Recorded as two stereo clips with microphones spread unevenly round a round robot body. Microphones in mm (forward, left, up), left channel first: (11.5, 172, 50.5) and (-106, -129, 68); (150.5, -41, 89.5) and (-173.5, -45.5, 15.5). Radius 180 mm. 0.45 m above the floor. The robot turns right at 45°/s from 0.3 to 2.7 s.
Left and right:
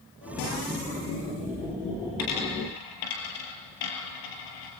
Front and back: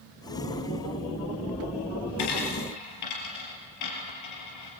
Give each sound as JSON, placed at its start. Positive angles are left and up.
{"t": 2.2, "sound": "a dropped coin", "azimuth_deg": 20, "distance_m": 4.0}